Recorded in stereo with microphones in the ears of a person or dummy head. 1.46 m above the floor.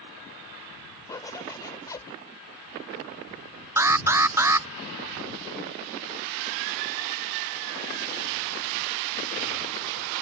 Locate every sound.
1.1 s a zipper: 20° left (ahead or behind)
3.8 s an alarm: 15° right (ahead or behind)